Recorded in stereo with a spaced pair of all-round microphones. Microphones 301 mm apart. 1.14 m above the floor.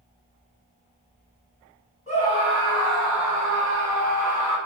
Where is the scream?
25° left (ahead or behind), 2.0 m; by 4.6 s 70° right (ahead or behind), 1.3 m.